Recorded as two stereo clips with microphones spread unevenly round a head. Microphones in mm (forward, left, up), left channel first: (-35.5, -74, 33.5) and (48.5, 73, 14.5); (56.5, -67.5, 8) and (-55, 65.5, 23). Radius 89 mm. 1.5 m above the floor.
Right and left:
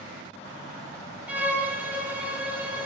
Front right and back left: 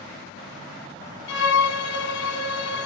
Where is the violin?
25° right, 0.5 m.